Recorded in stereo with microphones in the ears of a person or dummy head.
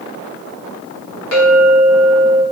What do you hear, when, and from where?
1.3 s a clink: 85° left, 1.2 m